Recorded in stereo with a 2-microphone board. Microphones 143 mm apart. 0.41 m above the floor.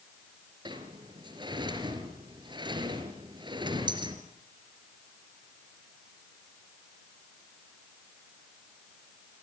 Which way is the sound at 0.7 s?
35° right (ahead or behind).